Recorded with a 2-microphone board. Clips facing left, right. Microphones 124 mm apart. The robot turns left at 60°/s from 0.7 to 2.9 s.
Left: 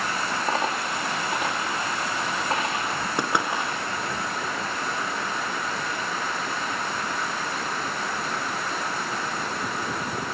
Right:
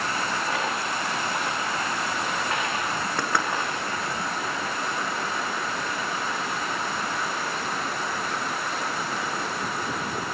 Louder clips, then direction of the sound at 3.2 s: Left 2 dB; 20° left (ahead or behind).